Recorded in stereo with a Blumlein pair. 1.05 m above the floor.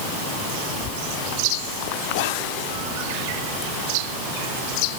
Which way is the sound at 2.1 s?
50° left.